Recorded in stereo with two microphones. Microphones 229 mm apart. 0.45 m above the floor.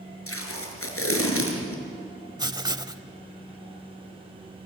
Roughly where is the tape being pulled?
Left.